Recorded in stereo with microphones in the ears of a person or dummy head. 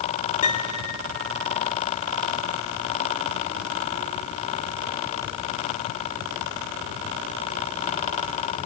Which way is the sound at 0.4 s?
40° left (ahead or behind).